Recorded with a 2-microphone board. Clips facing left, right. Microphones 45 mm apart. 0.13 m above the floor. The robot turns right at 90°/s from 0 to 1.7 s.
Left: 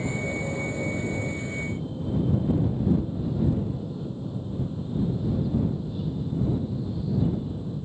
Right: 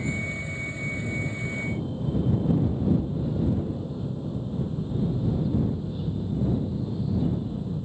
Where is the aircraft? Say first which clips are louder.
Left 1 dB; 35° left; by 7.8 s 175° right.